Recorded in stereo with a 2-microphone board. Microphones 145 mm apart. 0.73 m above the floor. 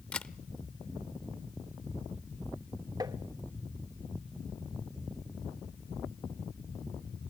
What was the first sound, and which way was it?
A camera shutter, 10° left (ahead or behind).